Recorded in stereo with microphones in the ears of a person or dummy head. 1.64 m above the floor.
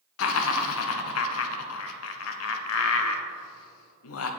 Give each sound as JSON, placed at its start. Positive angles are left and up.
{"t": 0.2, "sound": "laughter", "side_deg": 80, "distance_m": 0.7}